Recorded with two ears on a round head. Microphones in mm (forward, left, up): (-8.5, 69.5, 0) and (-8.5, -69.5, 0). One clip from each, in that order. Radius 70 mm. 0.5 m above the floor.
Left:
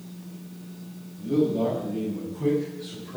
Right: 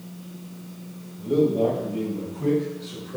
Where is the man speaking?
35° left (ahead or behind), 2 m; by 3.2 s 45° left (ahead or behind), 3.5 m.